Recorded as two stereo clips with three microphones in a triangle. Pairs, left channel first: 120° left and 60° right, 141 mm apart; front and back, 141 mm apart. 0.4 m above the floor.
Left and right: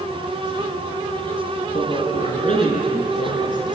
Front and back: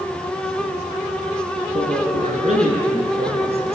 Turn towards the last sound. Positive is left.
turn(degrees=135)